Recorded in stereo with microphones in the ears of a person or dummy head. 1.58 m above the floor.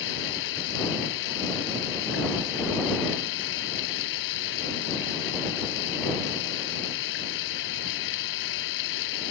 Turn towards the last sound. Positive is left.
turn(degrees=65)  # may be behind; listen again after turning